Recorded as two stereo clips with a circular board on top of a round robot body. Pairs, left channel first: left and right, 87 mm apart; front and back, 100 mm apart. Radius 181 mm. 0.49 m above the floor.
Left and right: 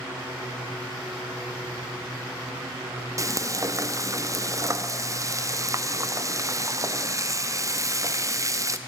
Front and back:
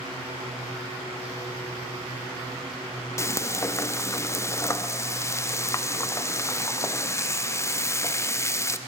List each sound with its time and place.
3.2 s frying: 55° right, 0.7 m